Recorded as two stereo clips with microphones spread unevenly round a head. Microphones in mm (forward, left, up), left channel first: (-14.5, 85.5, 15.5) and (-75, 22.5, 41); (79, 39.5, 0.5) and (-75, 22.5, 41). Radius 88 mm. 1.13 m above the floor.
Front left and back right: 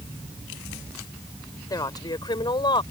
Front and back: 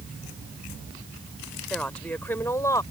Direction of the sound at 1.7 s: 95° left.